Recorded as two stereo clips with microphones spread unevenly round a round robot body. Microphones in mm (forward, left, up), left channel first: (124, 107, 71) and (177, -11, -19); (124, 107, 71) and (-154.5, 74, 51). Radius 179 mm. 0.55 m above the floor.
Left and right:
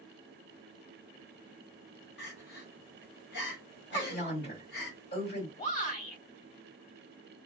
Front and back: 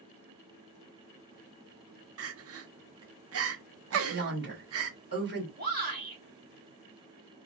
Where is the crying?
150° left, 0.7 m.